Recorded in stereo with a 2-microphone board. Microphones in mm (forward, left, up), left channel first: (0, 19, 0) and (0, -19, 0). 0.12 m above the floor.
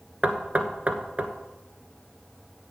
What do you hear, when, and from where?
0.2 s knocking: 40° right (ahead or behind), 1.1 m